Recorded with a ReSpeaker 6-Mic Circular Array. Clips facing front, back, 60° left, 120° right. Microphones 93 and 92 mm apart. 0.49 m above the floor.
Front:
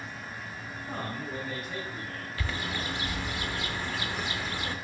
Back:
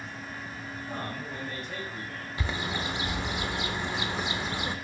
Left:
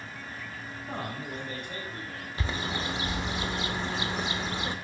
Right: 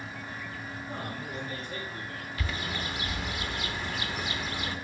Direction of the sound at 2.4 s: 115° left.